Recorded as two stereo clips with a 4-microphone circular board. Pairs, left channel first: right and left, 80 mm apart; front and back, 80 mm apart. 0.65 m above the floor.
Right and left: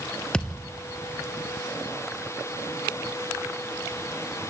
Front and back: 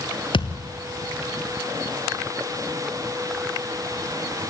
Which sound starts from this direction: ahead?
A thud, at 0.3 s.